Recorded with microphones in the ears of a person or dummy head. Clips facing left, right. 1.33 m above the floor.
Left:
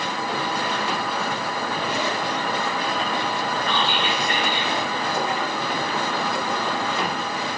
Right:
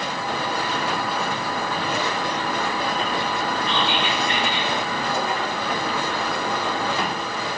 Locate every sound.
3.6 s whispering: 35° left (ahead or behind), 4 m